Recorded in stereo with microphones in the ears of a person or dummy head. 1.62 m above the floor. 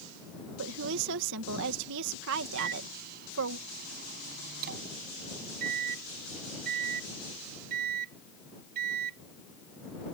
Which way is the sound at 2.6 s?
50° right (ahead or behind).